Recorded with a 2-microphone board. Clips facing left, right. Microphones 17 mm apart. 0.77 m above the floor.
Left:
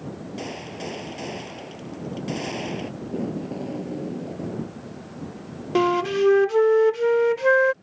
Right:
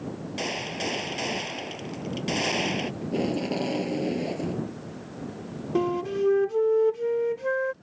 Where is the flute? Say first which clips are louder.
Left 6 dB; 60° left (ahead or behind).